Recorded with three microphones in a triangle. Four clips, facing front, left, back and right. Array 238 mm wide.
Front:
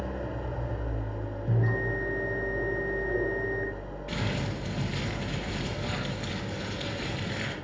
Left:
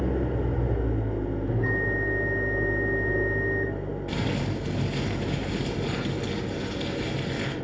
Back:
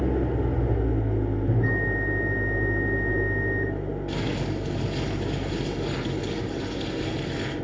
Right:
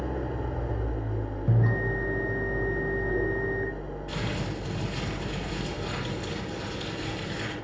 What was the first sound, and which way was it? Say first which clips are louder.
An engine running: left 5 dB, back 9 dB; 150° left.